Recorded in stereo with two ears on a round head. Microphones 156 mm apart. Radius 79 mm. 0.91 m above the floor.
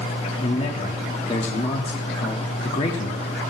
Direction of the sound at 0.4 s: 35° left (ahead or behind).